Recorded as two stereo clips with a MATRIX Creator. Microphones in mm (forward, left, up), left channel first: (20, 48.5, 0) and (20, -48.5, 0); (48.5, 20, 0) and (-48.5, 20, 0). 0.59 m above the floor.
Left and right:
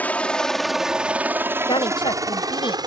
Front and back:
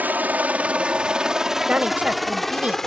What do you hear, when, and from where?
0.0 s a helicopter: 135° left; by 2.9 s 85° right
1.7 s a woman speaking: 105° left